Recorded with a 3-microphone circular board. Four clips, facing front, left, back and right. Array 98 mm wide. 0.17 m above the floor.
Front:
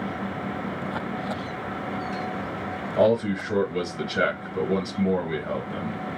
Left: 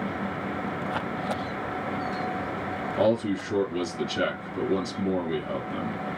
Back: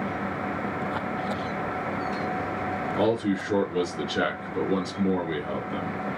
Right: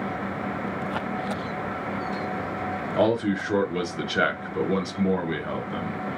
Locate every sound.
3.0 s a man speaking: 80° right, 3 m